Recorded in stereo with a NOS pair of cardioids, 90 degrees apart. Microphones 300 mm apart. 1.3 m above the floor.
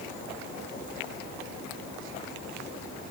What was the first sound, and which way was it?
Only background noise.